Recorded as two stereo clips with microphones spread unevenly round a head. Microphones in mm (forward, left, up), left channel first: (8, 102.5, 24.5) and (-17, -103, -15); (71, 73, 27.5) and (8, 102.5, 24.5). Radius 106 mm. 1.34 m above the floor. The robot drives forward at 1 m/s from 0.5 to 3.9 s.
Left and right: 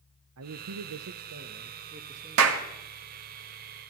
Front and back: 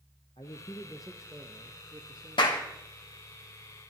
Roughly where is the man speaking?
Right.